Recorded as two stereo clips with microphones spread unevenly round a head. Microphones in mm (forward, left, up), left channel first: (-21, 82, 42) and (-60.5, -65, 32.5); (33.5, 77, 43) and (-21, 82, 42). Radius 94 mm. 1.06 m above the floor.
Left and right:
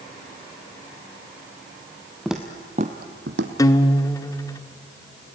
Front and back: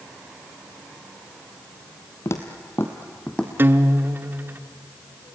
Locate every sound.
2.2 s footsteps: 10° right, 1.4 m; by 3.5 s 90° right, 2.0 m
3.6 s a guitar: 135° left, 0.9 m